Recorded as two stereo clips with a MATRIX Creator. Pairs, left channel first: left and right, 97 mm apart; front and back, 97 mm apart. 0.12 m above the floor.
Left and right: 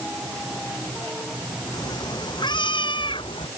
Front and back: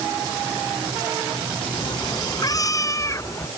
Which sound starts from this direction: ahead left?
A cat meowing, at 1.7 s.